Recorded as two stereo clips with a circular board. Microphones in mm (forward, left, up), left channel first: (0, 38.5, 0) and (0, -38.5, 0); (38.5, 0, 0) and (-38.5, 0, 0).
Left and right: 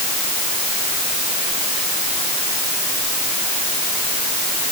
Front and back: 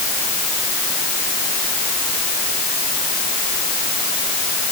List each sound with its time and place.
Only background noise.